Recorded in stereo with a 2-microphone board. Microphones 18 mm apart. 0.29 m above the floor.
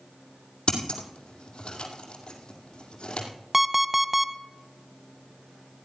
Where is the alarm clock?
10° right (ahead or behind), 0.6 m.